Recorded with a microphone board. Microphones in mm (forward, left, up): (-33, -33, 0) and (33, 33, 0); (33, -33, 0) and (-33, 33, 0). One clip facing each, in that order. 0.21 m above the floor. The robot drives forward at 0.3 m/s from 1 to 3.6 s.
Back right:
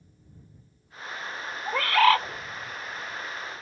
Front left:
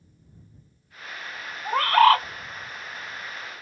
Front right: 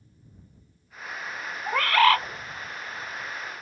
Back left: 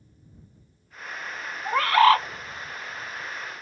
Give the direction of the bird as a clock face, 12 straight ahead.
10 o'clock.